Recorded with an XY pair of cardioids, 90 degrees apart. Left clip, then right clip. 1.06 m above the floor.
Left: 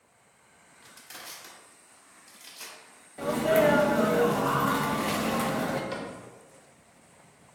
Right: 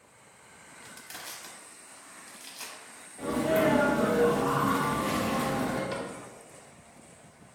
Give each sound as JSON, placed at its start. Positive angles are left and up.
{"t": 0.8, "sound": "crushing", "azimuth_deg": -30, "distance_m": 0.8}
{"t": 3.2, "sound": "a sneeze", "azimuth_deg": 55, "distance_m": 0.6}
{"t": 5.9, "sound": "a cupboard door", "azimuth_deg": -15, "distance_m": 0.7}